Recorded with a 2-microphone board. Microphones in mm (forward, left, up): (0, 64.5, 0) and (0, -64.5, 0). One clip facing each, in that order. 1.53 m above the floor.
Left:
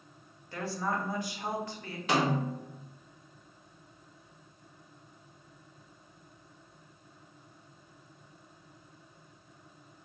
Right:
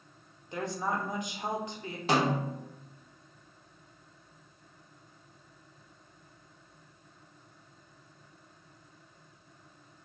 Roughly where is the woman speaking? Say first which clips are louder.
Right 1 dB; centre.